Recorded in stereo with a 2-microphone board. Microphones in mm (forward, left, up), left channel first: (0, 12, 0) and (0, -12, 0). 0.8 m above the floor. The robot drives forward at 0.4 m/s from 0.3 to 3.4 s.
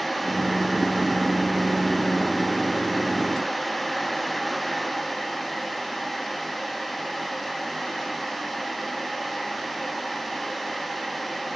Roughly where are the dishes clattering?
I don't hear dishes clattering.